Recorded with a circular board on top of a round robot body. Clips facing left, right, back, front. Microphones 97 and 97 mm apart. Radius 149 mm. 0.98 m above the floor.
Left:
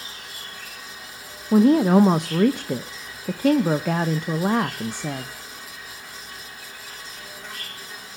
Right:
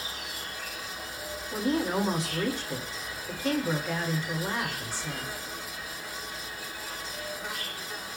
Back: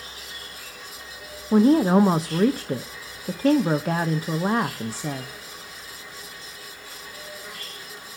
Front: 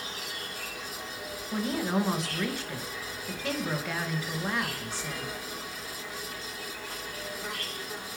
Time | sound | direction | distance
0.0 | an insect | 5° right | 4 m
1.5 | a woman speaking | 125° left | 0.9 m